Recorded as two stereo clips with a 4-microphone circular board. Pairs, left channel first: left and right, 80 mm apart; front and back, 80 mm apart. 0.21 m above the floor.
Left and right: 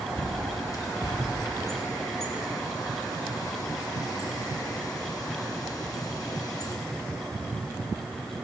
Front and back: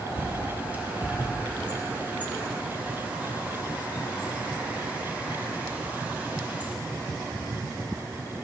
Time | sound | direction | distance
0.2 | a bird | 115° left | 1.9 m